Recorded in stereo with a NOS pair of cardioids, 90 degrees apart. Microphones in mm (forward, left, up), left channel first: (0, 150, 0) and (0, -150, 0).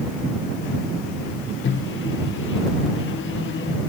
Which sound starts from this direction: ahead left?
A microwave, at 1.6 s.